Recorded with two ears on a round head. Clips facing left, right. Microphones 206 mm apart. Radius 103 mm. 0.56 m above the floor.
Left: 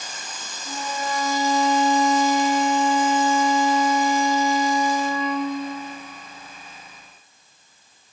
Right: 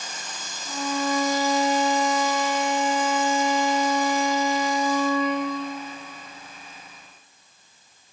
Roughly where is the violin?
Left.